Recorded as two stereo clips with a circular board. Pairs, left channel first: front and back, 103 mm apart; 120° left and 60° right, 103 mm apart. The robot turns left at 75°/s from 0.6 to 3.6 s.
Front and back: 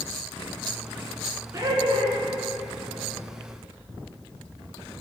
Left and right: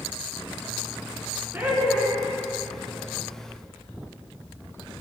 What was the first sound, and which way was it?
Laughter, 125° right.